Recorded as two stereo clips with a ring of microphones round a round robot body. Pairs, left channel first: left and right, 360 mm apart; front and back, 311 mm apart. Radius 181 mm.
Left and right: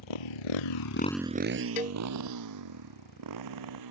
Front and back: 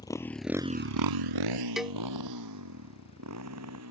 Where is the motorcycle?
80° left; by 3.9 s 125° right.